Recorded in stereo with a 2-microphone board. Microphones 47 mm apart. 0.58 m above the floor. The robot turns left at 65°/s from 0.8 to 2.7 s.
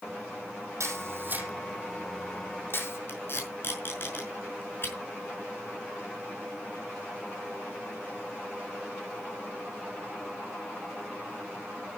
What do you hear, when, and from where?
0.8 s a camera shutter: 75° right (ahead or behind), 4.5 m; by 3.0 s 50° left (ahead or behind), 4.5 m
3.1 s tape being pulled: 50° left (ahead or behind), 5 m